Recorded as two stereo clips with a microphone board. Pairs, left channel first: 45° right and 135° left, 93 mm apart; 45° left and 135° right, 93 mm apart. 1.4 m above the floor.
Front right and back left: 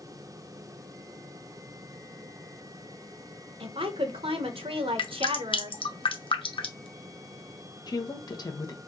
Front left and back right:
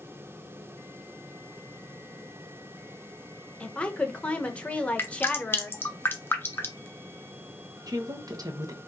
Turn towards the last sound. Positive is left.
turn(degrees=-90)